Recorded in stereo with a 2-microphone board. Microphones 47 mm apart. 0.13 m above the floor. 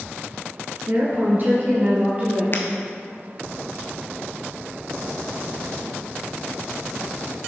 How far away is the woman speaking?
About 2 m.